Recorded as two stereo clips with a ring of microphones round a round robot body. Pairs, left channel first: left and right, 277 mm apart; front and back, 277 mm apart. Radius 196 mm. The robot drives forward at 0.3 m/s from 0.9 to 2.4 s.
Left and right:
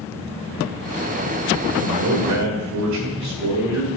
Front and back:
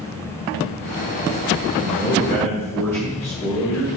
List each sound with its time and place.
1.8 s a man speaking: 75° right, 1.8 m; by 4.0 s 80° right, 1.7 m